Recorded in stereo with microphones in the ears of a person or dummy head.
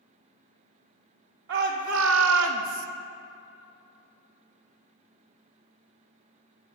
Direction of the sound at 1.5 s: 75° right (ahead or behind).